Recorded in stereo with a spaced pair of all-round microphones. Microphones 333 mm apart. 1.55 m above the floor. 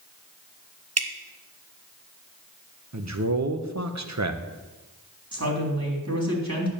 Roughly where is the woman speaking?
Right.